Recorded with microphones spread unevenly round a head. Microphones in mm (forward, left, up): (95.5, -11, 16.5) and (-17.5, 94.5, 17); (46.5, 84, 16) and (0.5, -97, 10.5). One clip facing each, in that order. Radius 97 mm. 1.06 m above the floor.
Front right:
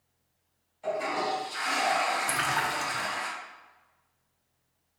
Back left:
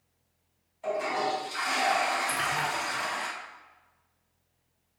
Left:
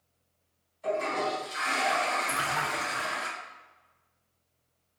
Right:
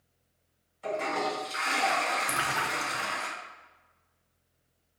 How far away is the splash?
About 0.7 m.